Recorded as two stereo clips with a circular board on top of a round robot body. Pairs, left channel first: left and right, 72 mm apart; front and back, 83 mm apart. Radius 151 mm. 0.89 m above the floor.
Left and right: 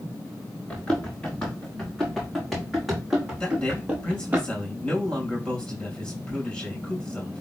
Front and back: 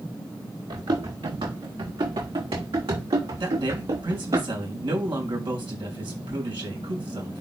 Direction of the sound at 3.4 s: 170° left.